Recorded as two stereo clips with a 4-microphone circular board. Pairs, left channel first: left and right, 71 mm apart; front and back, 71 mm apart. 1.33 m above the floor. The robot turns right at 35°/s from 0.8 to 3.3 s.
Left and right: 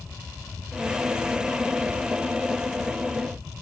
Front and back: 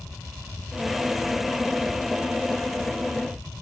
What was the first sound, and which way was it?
Only background noise.